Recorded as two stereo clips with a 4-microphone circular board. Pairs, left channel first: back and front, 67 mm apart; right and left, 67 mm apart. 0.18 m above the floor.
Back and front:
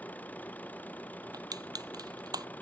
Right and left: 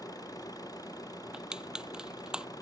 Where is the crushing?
10° left.